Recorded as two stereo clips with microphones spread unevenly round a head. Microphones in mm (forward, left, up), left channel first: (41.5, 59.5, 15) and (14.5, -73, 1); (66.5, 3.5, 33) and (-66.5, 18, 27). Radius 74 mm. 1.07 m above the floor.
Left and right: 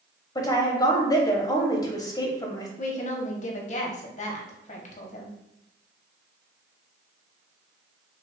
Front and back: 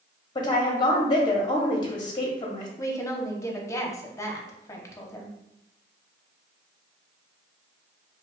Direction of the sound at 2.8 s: 60° left.